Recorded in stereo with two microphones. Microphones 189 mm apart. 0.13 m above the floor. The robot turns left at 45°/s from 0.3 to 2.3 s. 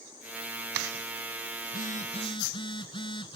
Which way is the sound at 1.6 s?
55° left (ahead or behind).